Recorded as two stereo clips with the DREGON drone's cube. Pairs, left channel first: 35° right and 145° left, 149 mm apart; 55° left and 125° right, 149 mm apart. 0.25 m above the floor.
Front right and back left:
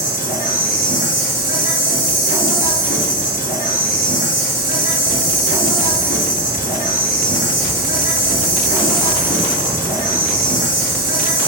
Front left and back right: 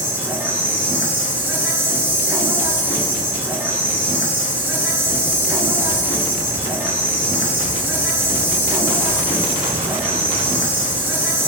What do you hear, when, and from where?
0.0 s an insect: 50° right, 1.2 m